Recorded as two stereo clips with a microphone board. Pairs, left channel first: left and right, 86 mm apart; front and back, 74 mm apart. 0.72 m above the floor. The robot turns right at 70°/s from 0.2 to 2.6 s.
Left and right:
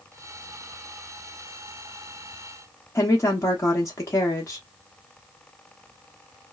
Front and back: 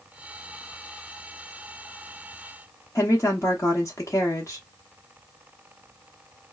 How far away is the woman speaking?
About 0.8 m.